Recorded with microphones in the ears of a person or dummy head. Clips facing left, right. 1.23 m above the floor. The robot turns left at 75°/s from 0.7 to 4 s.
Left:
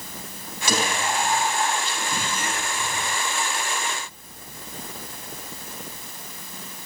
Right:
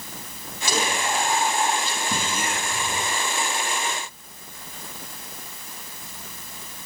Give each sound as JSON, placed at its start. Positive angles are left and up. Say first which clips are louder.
{"t": 0.7, "sound": "whispering", "louder": "even", "azimuth_deg": 55, "distance_m": 8.5}